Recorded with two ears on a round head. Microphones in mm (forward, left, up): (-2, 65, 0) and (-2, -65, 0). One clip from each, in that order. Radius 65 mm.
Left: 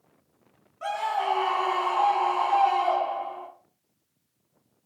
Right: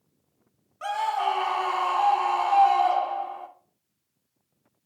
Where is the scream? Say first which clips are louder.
Right 1 dB; 35° right (ahead or behind), 1.0 m.